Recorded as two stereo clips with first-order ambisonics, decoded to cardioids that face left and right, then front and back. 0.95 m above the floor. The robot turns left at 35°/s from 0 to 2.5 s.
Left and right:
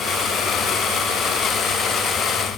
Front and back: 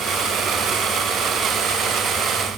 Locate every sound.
Only background noise.